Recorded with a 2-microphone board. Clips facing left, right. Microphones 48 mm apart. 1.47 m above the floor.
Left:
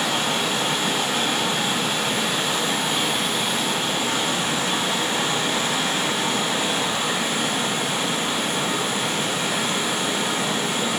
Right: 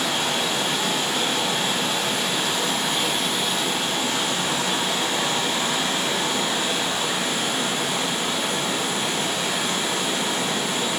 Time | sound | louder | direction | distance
0.0 | running water | left 1 dB | 50° left (ahead or behind) | 1.9 m